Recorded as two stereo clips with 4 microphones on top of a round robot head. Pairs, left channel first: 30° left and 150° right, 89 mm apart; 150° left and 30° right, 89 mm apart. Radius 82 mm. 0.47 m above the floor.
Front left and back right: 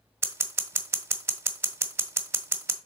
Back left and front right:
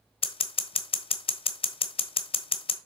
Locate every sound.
0.2 s scissors: 150° left, 0.9 m